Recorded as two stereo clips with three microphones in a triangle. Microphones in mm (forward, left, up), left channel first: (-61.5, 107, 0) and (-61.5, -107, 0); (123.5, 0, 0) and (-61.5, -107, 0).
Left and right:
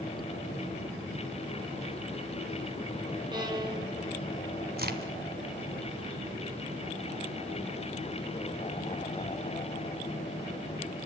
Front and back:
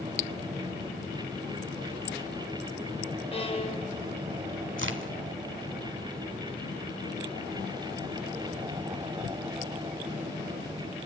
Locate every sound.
3.3 s a violin: 25° right, 2.5 m
4.8 s a crack: 130° right, 1.8 m